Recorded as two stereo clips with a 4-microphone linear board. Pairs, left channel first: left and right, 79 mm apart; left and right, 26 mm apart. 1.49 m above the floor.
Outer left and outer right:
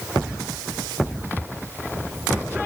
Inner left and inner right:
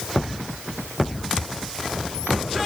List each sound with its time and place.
Only background noise.